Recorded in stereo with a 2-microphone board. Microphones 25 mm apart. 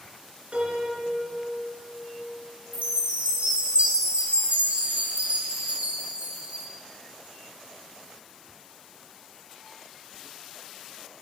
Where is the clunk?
I don't hear a clunk.